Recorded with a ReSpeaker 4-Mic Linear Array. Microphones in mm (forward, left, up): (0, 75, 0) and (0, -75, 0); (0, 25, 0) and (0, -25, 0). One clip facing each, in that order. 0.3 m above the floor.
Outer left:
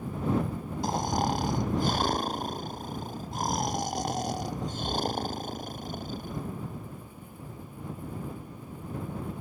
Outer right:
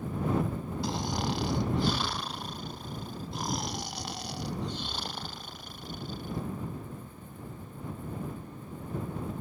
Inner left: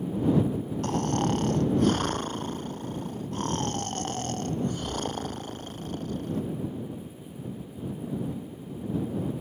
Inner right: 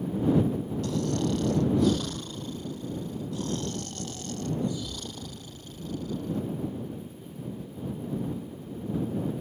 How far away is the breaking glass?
I don't hear breaking glass.